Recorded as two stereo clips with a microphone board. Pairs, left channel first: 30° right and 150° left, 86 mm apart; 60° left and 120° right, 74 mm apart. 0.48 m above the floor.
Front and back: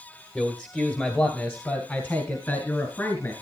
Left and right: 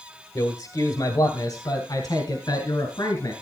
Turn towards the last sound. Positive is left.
turn(degrees=30)